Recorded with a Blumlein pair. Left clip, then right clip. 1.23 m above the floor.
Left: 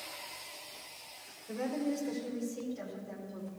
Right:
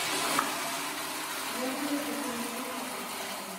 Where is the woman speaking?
25° left, 4.5 m; by 3.5 s 5° left, 4 m.